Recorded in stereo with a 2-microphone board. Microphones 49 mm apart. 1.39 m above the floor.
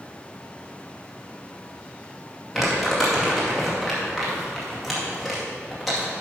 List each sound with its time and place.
2.5 s crumpling: centre (ahead or behind), 2.5 m